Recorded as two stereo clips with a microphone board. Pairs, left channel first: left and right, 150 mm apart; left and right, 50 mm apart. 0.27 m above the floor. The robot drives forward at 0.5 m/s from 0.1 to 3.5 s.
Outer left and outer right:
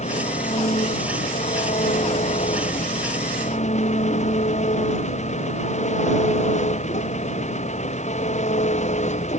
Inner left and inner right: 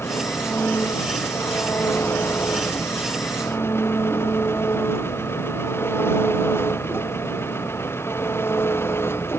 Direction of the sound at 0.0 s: 50° left (ahead or behind).